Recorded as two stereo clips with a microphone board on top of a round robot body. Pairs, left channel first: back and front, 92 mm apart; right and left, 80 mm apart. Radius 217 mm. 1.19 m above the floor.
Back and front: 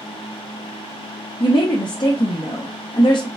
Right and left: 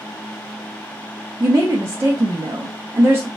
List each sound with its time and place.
1.4 s a woman speaking: 145° left, 0.9 m